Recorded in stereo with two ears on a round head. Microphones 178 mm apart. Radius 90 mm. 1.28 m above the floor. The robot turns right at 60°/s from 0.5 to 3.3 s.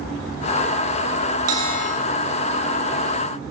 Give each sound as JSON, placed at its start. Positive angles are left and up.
{"t": 1.5, "sound": "a bell", "side_deg": -90, "distance_m": 7.5}